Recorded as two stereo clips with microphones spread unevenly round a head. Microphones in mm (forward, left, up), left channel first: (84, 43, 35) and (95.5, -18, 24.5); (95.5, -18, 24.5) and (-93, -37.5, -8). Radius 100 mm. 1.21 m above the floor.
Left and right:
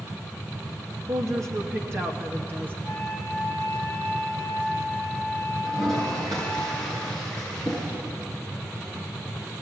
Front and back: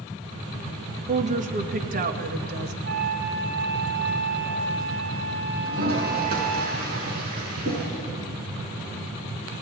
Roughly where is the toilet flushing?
Behind right.